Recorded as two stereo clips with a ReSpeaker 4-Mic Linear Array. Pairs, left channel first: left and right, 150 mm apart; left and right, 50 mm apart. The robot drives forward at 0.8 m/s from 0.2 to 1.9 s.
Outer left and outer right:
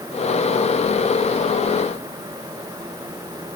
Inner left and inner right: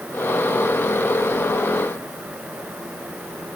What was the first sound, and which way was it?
Only background noise.